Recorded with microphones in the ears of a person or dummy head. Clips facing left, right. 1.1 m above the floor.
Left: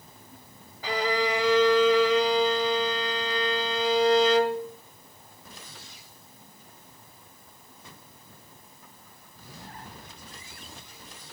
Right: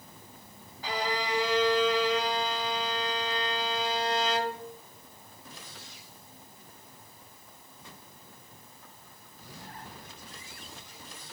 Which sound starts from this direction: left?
A violin, at 0.8 s.